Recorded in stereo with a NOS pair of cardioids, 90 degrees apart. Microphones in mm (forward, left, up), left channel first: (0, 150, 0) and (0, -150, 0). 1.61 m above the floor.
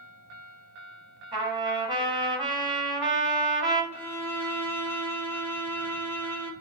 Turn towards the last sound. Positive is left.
turn(degrees=5)